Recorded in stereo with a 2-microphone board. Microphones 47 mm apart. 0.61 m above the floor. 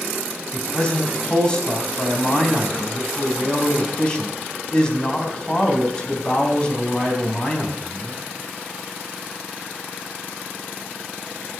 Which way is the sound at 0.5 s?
20° left (ahead or behind).